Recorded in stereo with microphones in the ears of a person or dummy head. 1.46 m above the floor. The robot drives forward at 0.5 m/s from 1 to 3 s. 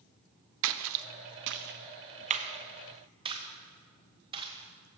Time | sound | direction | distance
0.6 | a splash | 75° right (ahead or behind) | 0.5 m